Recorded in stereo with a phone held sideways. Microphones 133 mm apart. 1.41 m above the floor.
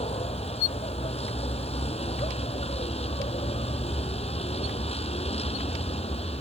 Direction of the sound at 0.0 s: 50° left (ahead or behind).